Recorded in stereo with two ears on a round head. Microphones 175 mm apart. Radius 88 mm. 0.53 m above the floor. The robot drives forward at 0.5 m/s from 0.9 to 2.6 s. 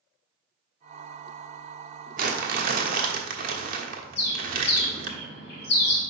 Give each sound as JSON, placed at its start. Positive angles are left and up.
{"t": 2.2, "sound": "crumpling", "side_deg": -45, "distance_m": 1.3}
{"t": 4.2, "sound": "a bird", "side_deg": 55, "distance_m": 2.0}